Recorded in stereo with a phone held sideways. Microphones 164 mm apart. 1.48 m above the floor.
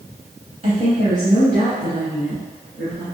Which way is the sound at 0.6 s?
45° right (ahead or behind).